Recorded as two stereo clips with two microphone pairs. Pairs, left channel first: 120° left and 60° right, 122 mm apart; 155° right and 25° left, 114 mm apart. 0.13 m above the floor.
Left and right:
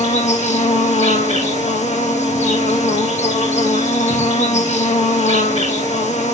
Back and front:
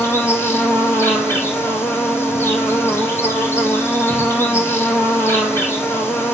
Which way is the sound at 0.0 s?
135° left.